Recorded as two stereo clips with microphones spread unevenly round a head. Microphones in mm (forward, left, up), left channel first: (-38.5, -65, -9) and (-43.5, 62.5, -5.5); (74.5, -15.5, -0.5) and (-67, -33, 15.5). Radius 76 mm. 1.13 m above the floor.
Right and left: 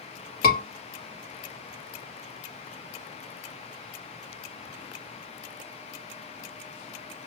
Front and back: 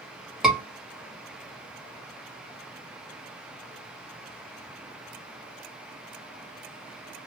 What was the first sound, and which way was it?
A scream, 85° right.